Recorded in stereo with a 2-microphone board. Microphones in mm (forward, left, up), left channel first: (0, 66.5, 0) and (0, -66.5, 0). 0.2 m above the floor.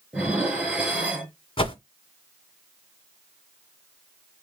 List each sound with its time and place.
0.1 s dishes clattering: 10° right (ahead or behind), 2.5 m
1.6 s a whoosh: 45° left (ahead or behind), 1.3 m